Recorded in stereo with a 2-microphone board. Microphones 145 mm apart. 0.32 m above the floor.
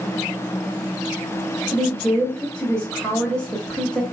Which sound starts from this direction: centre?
A woman speaking, at 1.7 s.